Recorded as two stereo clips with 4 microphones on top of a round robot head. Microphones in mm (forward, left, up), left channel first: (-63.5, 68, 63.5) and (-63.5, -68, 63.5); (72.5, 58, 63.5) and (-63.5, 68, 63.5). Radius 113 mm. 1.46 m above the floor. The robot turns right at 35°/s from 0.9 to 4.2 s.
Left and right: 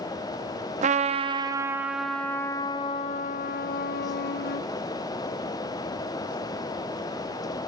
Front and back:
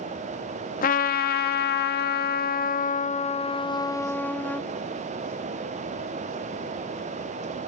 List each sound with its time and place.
0.8 s a trumpet: 40° right, 0.7 m; by 4.6 s 75° left, 0.7 m